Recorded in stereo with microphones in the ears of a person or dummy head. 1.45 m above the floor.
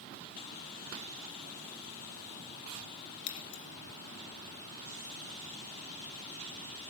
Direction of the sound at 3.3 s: 75° left (ahead or behind).